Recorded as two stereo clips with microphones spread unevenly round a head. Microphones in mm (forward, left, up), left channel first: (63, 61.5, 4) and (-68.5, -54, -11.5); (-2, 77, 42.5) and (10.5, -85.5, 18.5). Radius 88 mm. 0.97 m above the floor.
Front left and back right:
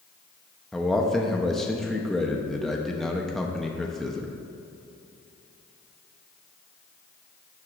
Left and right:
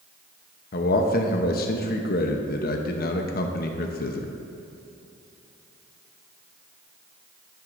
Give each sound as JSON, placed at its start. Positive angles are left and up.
{"t": 0.7, "sound": "a man speaking", "azimuth_deg": 130, "distance_m": 0.8}